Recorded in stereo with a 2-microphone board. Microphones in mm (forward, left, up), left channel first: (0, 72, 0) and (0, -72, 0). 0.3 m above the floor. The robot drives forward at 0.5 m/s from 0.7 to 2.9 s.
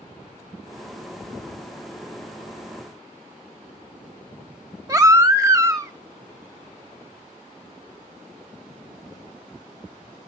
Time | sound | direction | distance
4.9 | a baby crying | 25° right (ahead or behind) | 0.7 m